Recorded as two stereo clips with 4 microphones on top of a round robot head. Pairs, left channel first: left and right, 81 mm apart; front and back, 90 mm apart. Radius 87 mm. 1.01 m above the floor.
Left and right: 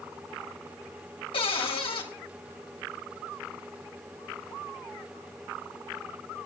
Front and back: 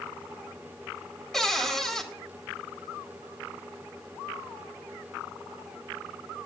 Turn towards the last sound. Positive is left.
turn(degrees=85)